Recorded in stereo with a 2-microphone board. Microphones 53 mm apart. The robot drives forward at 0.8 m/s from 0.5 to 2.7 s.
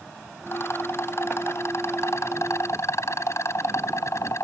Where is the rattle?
50° left (ahead or behind); by 4.5 s 65° left (ahead or behind).